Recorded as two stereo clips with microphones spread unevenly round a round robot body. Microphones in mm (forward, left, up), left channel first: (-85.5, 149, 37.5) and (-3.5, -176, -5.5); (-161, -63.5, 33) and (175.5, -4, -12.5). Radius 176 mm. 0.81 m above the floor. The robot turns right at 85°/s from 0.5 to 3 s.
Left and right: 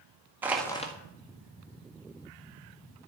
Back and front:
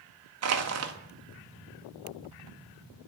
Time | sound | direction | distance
0.4 | crushing | straight ahead | 1.5 m